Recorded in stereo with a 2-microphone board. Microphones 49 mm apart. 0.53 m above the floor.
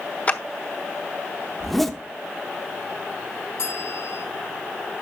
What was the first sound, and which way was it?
A clap, 30° left (ahead or behind).